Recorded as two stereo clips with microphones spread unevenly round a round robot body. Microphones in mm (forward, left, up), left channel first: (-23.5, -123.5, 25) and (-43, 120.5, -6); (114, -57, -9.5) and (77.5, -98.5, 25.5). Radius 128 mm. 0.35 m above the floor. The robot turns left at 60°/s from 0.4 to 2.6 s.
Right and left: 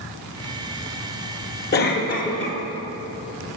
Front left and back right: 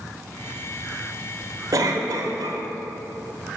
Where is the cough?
95° right, 1.2 m; by 2.6 s 145° right, 1.2 m.